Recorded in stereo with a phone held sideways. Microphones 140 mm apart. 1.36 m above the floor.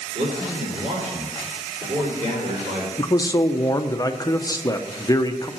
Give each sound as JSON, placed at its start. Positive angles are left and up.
{"t": 0.1, "sound": "a man speaking", "side_deg": -65, "distance_m": 3.5}
{"t": 3.0, "sound": "a man speaking", "side_deg": 25, "distance_m": 0.7}